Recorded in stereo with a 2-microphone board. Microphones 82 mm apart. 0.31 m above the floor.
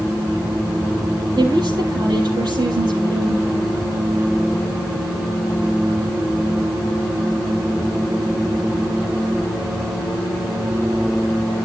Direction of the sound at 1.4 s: 55° right (ahead or behind).